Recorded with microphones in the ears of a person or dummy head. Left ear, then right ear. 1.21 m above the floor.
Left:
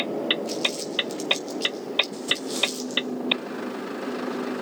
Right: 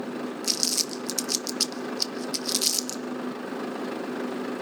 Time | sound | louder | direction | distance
0.4 | crumpling | right 1 dB | 85° right | 1.1 m